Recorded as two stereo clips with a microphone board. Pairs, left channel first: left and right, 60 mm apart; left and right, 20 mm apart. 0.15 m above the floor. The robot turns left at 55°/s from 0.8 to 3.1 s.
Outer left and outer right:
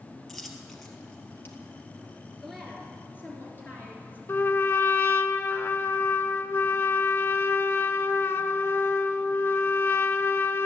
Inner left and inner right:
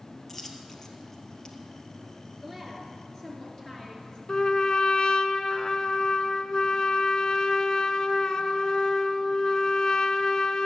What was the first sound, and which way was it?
A dropped coin, 5° left (ahead or behind).